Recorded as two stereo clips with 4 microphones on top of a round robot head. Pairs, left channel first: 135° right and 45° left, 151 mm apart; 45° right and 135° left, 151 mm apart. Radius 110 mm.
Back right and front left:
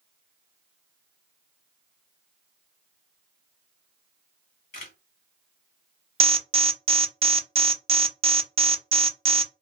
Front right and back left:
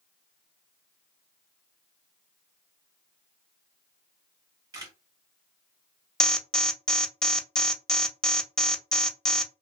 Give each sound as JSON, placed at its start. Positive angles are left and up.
{"t": 4.7, "sound": "a camera shutter", "azimuth_deg": -160, "distance_m": 1.6}
{"t": 6.2, "sound": "an alarm", "azimuth_deg": 35, "distance_m": 0.6}